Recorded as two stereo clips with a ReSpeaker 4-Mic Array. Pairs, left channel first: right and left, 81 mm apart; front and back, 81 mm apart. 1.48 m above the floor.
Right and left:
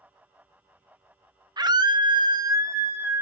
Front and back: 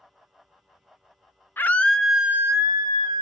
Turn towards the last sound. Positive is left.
turn(degrees=160)